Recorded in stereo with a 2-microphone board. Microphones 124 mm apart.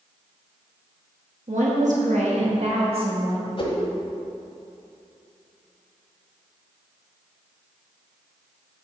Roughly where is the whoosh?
Left.